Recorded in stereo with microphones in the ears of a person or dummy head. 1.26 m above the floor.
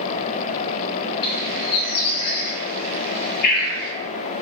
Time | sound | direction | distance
1.2 | a bird | 60° left (ahead or behind) | 0.8 m